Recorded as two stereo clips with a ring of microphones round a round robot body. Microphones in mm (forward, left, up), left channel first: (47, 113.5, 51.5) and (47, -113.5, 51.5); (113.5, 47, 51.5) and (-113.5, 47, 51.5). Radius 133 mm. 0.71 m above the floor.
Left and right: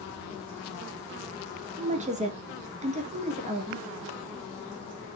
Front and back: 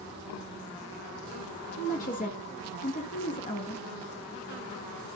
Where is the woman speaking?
40° right, 1.1 m.